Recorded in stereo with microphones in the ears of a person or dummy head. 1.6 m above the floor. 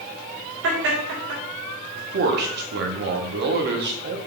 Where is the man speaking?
60° right (ahead or behind), 0.6 m.